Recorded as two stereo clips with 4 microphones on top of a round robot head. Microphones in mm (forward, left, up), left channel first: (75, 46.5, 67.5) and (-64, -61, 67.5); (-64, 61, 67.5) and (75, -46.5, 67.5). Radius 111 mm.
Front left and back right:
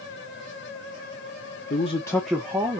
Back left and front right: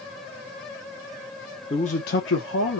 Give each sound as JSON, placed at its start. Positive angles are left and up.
{"t": 1.7, "sound": "a man speaking", "azimuth_deg": 80, "distance_m": 0.8}